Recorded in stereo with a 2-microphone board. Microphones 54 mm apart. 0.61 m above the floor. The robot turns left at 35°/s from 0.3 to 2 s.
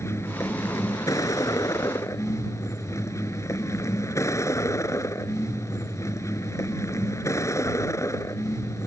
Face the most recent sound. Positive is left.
turn(degrees=65)